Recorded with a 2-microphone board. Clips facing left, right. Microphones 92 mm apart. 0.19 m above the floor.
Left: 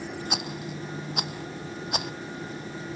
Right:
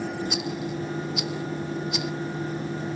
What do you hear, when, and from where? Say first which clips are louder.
0.3 s a rattle: right 4 dB; 50° left (ahead or behind)